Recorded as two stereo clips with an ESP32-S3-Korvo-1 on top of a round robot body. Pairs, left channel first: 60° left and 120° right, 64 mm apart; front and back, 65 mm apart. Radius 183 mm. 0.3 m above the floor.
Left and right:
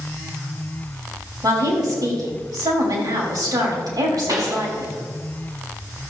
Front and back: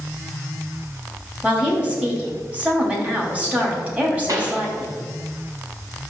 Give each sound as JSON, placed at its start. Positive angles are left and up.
{"t": 1.4, "sound": "a woman speaking", "azimuth_deg": -110, "distance_m": 3.5}
{"t": 4.3, "sound": "a pop", "azimuth_deg": -145, "distance_m": 2.5}